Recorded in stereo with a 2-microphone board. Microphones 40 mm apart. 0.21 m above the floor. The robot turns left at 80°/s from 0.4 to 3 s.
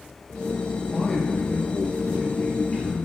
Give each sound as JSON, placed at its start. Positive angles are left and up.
{"t": 0.9, "sound": "a man speaking", "azimuth_deg": -175, "distance_m": 3.5}